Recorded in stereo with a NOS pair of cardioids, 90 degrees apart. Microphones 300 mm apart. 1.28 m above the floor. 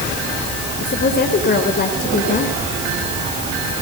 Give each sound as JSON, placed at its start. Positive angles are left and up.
{"t": 0.8, "sound": "a woman speaking", "azimuth_deg": 35, "distance_m": 5.0}